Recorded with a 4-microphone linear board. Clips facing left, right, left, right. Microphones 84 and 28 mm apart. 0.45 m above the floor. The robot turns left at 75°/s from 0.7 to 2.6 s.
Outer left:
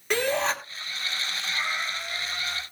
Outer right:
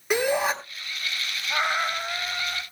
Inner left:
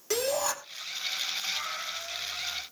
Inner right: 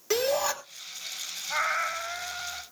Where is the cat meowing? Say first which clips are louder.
Outer right 7 dB, inner right 6 dB; 80° right, 1.4 m; by 2.6 s 165° right, 1.4 m.